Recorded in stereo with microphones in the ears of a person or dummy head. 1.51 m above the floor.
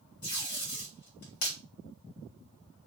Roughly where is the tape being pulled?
Left.